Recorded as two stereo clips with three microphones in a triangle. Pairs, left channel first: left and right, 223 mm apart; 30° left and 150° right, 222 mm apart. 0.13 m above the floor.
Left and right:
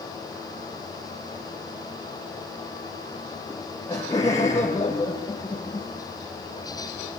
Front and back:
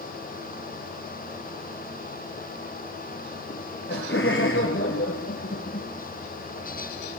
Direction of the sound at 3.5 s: 20° left.